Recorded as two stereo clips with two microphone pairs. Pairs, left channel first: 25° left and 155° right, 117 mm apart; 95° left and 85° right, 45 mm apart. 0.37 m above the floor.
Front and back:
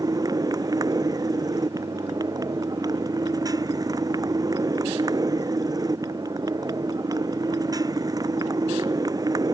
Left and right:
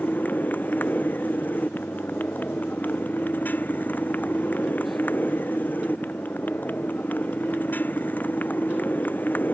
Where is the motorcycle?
145° left.